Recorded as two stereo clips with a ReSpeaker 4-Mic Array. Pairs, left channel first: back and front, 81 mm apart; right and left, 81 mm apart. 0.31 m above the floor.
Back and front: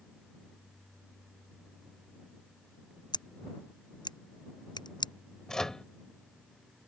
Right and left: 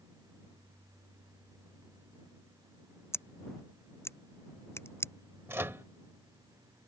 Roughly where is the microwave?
Left.